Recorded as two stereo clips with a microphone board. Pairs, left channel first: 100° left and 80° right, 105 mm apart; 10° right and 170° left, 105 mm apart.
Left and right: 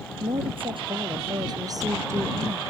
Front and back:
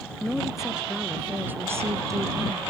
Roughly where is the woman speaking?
Right.